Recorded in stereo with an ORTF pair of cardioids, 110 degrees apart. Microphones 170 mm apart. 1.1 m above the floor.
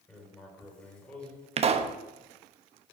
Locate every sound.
0.1 s writing: 5° left, 5 m
1.6 s a pop: 40° right, 0.9 m